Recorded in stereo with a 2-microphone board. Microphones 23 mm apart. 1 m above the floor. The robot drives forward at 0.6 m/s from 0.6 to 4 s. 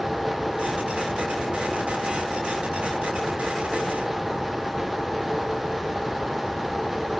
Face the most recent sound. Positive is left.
No sound to turn to.